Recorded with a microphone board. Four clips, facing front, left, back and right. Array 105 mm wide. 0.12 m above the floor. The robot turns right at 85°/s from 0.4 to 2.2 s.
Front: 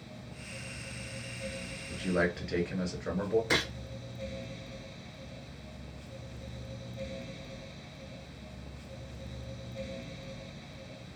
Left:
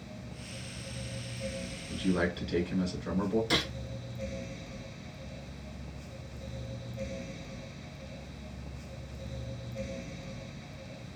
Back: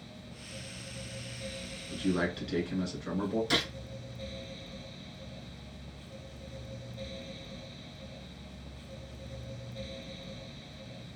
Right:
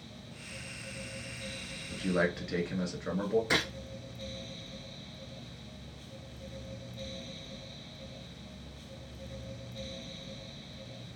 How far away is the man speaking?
About 1.5 m.